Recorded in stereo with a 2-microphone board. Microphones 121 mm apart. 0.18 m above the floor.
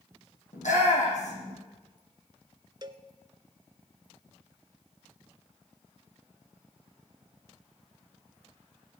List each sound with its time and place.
0.5 s a shout: 80° left, 8 m
2.8 s a cowbell: 40° right (ahead or behind), 0.8 m